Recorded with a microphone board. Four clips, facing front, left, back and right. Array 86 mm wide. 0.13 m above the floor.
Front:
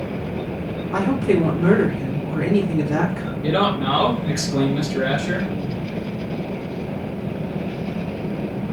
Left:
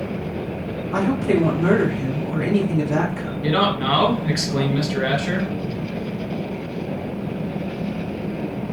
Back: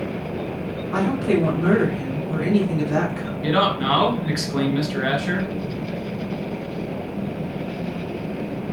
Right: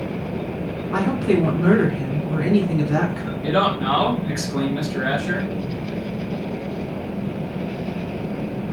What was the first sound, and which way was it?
A woman speaking, 100° right.